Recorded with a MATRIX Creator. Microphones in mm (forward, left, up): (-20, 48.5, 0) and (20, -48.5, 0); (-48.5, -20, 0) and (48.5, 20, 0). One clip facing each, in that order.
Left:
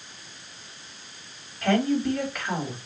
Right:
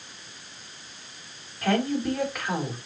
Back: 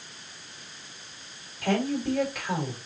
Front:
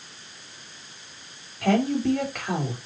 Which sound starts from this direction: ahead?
A woman speaking, at 1.6 s.